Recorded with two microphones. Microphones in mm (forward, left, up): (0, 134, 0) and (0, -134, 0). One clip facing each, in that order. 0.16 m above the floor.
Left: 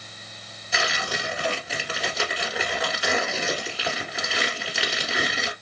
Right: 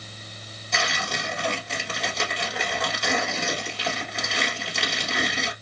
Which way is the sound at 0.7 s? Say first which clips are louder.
Left 1 dB; 5° left (ahead or behind).